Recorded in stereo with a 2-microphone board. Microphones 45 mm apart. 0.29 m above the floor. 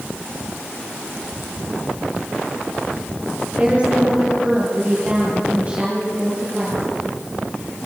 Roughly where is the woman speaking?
Right.